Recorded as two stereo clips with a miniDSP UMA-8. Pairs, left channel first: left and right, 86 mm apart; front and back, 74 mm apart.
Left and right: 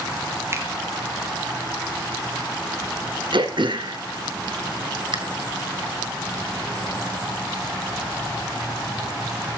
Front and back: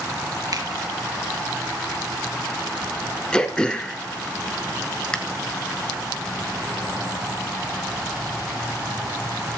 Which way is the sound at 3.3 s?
80° right.